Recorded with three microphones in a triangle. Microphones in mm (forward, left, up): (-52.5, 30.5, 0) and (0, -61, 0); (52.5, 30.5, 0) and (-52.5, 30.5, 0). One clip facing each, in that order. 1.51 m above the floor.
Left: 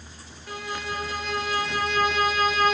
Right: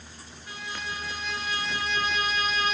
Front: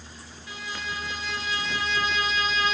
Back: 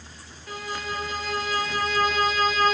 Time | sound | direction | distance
0.5 | a violin | 145° left | 0.5 m